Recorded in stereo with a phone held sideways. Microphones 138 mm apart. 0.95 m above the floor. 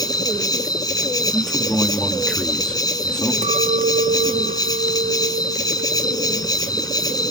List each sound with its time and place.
0.0 s an insect: 30° left (ahead or behind), 1.0 m
1.3 s a man speaking: 5° left (ahead or behind), 1.4 m
3.4 s a clink: 65° right (ahead or behind), 0.7 m